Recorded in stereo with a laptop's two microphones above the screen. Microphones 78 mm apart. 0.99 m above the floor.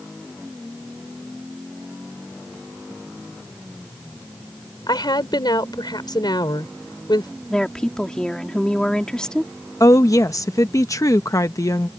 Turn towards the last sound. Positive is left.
turn(degrees=45)  # may be behind; listen again after turning